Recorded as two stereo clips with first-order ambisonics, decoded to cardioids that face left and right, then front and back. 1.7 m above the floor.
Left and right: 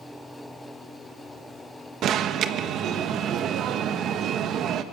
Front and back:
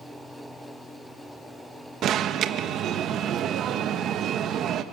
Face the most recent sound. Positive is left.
turn(degrees=-135)